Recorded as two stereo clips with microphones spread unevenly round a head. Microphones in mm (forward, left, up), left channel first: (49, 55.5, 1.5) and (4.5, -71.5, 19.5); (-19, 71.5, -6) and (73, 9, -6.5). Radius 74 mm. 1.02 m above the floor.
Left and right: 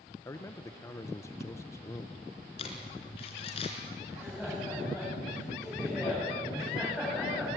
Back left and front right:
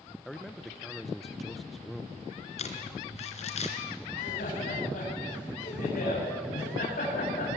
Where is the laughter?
160° left, 7.5 m.